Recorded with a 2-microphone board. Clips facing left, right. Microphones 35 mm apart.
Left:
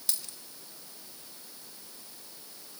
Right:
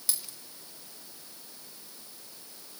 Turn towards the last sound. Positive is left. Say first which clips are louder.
# even
turn(degrees=-5)  # may be behind; listen again after turning